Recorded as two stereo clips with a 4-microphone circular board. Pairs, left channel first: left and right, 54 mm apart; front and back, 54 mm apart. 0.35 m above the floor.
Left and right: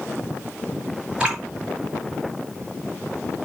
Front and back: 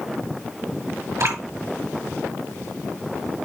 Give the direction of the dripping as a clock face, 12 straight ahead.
5 o'clock.